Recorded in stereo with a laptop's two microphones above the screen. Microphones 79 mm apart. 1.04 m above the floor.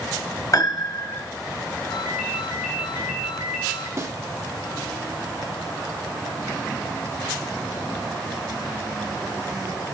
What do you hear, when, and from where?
0.5 s a piano: 45° left (ahead or behind), 1.2 m
1.9 s a ringtone: 10° left (ahead or behind), 5 m
4.0 s a snare drum: 35° right (ahead or behind), 1.4 m